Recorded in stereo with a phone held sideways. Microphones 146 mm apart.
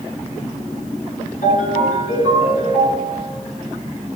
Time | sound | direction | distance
1.4 | a ringtone | 70° left (ahead or behind) | 9 m